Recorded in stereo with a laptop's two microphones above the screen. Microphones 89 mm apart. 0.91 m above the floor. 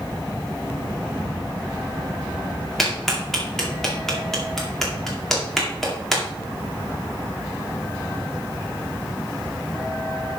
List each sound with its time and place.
2.8 s a clap: 5° left (ahead or behind), 2.0 m